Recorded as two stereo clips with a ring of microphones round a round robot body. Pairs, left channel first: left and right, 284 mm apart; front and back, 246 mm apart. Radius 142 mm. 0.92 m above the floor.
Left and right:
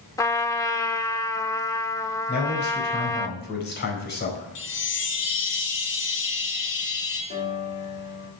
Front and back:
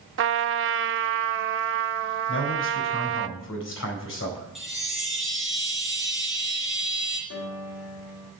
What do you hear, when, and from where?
0.2 s a trumpet: 165° left, 0.6 m
2.3 s a man speaking: 35° left, 4.5 m
4.5 s a chime: 90° left, 4 m
7.3 s a piano: 30° left, 1.8 m